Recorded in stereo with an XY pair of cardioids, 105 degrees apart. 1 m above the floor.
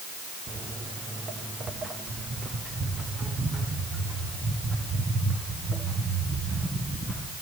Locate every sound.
0.5 s footsteps: 50° right, 4 m; by 7.3 s 30° right, 10 m